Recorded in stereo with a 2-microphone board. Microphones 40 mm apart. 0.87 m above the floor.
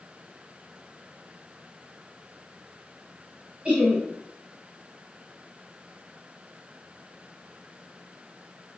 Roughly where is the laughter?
Right.